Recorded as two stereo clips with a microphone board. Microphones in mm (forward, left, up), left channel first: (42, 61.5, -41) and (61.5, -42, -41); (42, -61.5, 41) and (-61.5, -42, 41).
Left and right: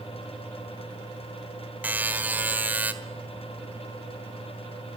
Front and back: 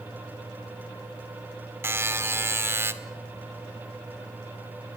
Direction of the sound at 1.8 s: 140° right.